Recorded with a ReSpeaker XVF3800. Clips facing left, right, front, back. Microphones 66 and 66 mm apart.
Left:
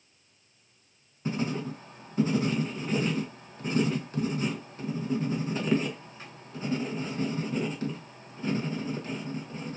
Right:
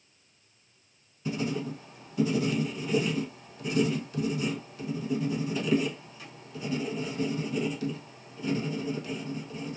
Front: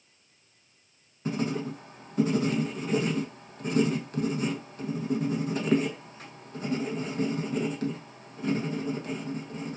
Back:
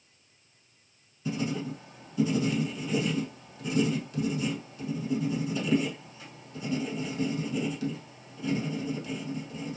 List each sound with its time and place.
1.2 s writing: 40° left, 0.6 m